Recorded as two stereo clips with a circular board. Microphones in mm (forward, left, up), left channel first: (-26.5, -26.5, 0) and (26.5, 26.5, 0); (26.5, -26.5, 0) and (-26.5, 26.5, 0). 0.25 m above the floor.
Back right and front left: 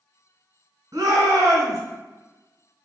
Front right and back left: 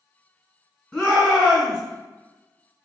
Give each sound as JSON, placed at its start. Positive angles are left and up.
{"t": 0.9, "sound": "a shout", "azimuth_deg": 40, "distance_m": 1.2}